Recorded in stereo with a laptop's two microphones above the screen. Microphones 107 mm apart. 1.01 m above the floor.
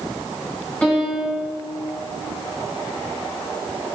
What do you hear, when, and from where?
0.8 s a piano: 10° left (ahead or behind), 6 m